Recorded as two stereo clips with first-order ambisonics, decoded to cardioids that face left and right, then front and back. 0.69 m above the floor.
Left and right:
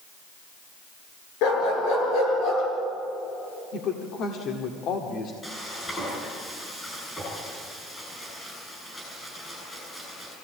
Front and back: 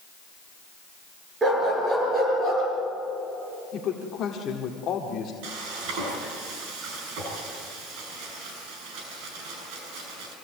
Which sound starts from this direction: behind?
Frying, at 5.4 s.